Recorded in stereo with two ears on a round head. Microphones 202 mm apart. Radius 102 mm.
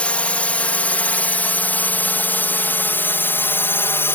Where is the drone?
5° left (ahead or behind); by 4.2 s 10° left (ahead or behind).